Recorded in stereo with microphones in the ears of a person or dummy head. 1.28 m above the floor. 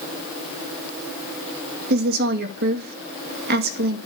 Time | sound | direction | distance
1.9 | a woman speaking | 55° right (ahead or behind) | 2 m